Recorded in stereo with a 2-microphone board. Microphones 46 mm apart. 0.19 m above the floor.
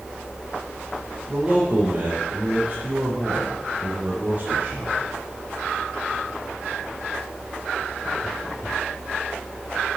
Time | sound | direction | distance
1.3 | a man speaking | 30° right (ahead or behind) | 4.5 m